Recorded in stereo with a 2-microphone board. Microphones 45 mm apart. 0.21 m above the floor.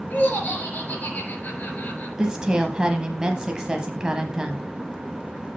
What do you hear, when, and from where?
0.1 s laughter: 35° left (ahead or behind), 4 m
2.2 s a woman speaking: 20° right (ahead or behind), 1.0 m